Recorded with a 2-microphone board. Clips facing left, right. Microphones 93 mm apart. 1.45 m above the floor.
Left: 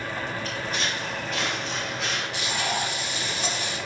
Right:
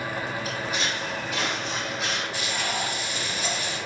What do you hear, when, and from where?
0.5 s footsteps: 10° right (ahead or behind), 1.9 m; by 2.2 s 5° right (ahead or behind), 2.5 m
2.3 s frying: 75° left (ahead or behind), 1.8 m